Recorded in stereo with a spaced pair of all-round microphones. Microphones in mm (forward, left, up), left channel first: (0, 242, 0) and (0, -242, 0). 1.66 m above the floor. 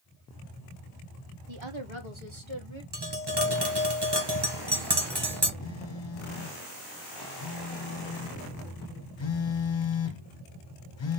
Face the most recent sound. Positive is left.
turn(degrees=65)  # may be behind; listen again after turning